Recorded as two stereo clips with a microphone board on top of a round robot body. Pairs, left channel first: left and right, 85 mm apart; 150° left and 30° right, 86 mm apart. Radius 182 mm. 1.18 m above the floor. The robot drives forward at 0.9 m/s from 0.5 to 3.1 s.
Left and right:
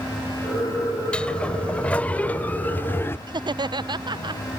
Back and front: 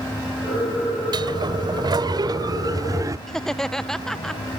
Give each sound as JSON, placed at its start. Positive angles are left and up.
{"t": 1.1, "sound": "a sliding door", "azimuth_deg": 10}
{"t": 3.3, "sound": "laughter", "azimuth_deg": -125}